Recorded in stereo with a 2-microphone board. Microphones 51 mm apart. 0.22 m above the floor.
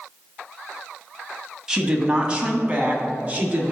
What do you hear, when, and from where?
1.7 s a woman speaking: 15° right (ahead or behind), 1.0 m; by 3.7 s 30° right (ahead or behind), 1.8 m